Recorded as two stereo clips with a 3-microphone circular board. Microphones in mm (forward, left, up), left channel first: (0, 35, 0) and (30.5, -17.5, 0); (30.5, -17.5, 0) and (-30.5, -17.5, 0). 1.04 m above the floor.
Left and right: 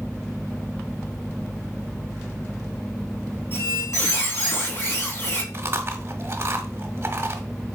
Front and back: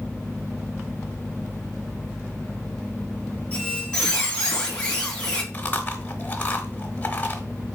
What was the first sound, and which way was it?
A squeak, 75° left.